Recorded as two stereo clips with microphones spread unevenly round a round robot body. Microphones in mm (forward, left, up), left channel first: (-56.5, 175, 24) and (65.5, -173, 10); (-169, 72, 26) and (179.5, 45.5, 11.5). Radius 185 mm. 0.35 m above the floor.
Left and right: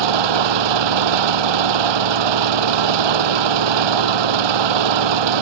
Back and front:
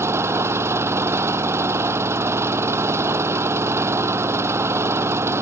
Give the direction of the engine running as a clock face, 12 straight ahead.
3 o'clock.